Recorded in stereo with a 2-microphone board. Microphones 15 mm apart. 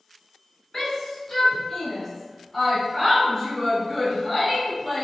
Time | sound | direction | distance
0.7 | a shout | 30° left (ahead or behind) | 1.6 m